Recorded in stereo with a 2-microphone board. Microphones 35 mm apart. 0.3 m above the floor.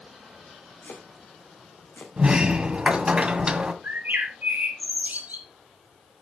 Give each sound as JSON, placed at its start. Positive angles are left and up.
{"t": 0.8, "sound": "chopping", "side_deg": 90, "distance_m": 4.0}
{"t": 2.2, "sound": "a sliding door", "side_deg": -30, "distance_m": 1.7}
{"t": 3.8, "sound": "a bird", "side_deg": -60, "distance_m": 3.5}